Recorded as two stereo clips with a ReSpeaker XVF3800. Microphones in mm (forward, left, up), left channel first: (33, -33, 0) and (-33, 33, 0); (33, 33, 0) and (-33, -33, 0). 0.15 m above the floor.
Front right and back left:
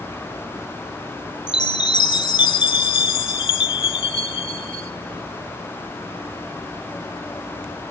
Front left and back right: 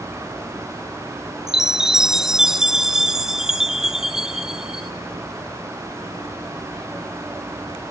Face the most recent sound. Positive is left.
turn(degrees=-50)